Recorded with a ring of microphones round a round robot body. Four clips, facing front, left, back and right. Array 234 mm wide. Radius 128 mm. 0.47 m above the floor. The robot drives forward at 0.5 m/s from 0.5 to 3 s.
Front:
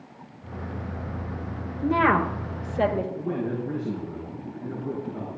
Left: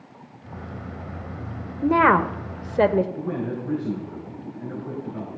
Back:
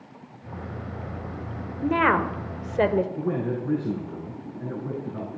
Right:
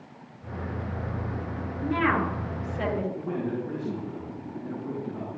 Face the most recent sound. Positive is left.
turn(degrees=165)